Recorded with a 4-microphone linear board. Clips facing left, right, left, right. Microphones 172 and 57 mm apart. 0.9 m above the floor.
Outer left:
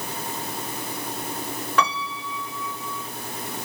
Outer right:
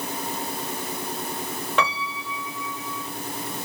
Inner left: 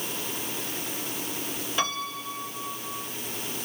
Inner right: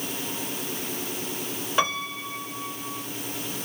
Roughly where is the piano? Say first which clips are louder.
Outer left 1 dB, inner right 4 dB; right.